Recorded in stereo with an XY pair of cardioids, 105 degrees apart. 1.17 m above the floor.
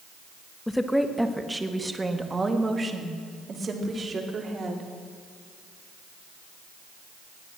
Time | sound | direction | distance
0.7 | a woman speaking | 10° left | 1.2 m